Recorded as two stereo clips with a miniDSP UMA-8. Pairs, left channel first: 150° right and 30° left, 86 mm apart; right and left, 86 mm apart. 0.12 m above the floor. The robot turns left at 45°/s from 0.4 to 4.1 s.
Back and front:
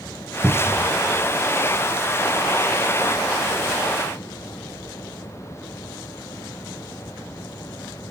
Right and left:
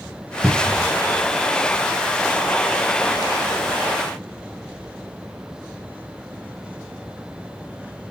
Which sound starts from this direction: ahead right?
A cupboard door, at 0.4 s.